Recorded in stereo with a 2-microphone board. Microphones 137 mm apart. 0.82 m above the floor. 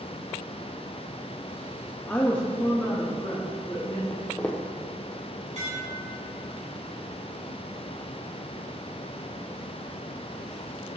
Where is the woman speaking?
10° left (ahead or behind), 0.9 m; by 4.0 s 20° left (ahead or behind), 1.8 m.